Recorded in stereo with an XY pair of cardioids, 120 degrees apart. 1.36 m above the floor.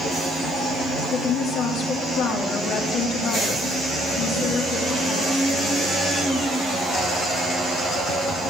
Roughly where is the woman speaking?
Ahead left.